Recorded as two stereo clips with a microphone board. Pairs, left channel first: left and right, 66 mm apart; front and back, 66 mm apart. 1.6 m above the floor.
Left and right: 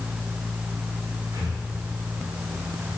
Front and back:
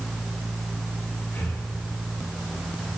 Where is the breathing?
70° right, 6 m.